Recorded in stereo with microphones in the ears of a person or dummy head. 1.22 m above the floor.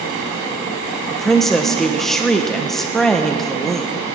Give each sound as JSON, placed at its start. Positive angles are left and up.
{"t": 1.1, "sound": "a woman speaking", "side_deg": 0, "distance_m": 1.1}